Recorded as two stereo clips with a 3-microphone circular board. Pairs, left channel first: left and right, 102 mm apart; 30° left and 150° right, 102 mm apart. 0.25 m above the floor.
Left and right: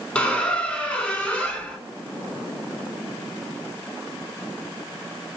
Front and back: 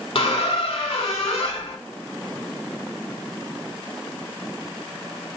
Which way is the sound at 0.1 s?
15° left.